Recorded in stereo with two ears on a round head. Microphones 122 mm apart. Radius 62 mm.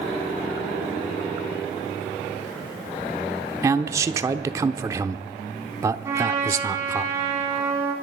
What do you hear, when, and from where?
3.6 s a man speaking: 20° right (ahead or behind), 0.8 m
6.0 s a trumpet: 20° right (ahead or behind), 4 m